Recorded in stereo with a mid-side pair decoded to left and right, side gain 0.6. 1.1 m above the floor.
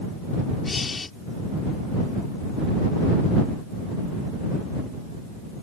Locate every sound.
0.6 s breathing: 20° left